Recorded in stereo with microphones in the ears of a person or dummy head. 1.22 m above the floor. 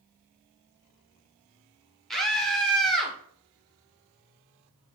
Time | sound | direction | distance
2.1 | a scream | 5° right (ahead or behind) | 1.0 m